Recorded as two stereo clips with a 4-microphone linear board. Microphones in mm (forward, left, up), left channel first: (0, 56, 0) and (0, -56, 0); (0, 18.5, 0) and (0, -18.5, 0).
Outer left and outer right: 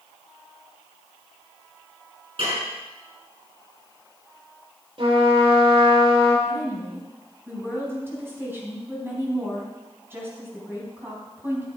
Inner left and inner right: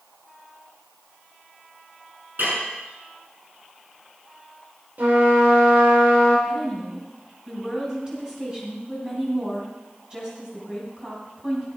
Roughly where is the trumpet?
Right.